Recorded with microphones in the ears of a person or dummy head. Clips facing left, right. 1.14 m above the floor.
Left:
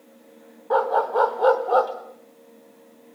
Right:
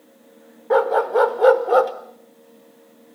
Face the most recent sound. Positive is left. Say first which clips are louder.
# right 4 dB
turn(degrees=-30)  # may be behind; listen again after turning